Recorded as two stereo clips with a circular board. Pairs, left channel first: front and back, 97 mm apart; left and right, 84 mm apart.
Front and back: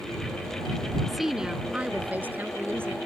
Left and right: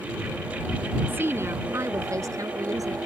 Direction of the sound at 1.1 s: 95° right.